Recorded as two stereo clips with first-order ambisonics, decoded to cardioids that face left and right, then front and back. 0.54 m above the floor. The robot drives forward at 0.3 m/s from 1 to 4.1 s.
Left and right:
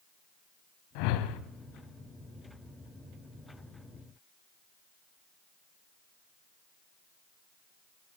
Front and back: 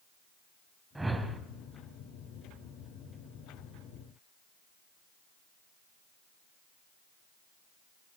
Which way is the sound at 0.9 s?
100° left.